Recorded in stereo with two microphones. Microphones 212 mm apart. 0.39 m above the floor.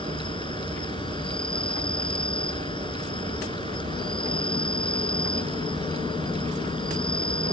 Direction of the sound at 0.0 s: 25° left (ahead or behind).